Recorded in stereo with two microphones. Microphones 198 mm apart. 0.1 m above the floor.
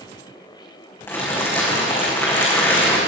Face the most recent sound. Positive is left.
turn(degrees=10)  # may be behind; listen again after turning